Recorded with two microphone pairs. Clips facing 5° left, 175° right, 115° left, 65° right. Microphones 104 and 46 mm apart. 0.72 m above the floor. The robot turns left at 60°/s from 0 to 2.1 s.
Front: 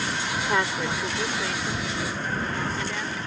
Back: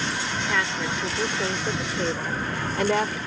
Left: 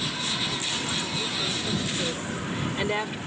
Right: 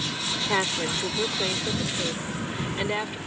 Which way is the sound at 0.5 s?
60° right.